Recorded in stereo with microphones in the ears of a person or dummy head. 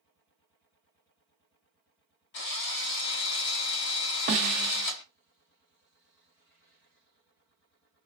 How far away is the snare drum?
About 0.5 m.